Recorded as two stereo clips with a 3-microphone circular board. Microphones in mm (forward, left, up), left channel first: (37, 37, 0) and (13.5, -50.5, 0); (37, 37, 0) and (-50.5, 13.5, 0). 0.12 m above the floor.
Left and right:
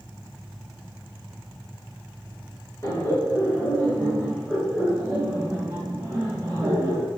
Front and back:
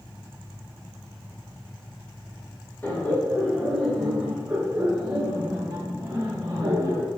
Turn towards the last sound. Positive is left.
turn(degrees=-155)